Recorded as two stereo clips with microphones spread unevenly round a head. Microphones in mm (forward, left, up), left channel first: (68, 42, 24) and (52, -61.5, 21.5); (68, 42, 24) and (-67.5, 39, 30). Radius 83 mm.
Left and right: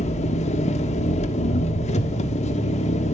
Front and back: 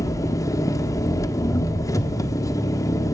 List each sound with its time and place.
0.0 s an engine running: 70° left, 1.3 m